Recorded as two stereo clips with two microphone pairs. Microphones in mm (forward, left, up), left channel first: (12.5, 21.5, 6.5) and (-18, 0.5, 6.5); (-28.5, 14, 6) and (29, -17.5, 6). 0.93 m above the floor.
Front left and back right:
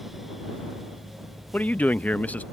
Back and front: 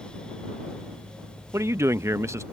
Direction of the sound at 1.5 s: 5° left.